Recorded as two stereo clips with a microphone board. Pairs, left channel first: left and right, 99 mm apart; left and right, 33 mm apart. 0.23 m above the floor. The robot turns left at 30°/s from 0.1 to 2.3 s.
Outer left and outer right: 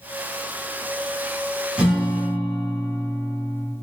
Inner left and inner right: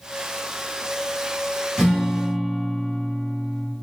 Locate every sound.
1.8 s a guitar: 10° right (ahead or behind), 1.3 m; by 3.7 s 25° right (ahead or behind), 1.3 m